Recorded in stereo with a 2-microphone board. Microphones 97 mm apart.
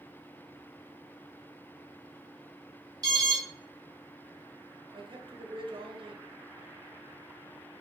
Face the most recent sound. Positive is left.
turn(degrees=-55)  # may be behind; listen again after turning